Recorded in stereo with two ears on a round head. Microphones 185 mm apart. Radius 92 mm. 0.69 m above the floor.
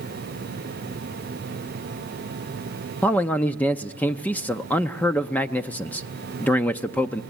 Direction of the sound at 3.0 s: 10° left (ahead or behind).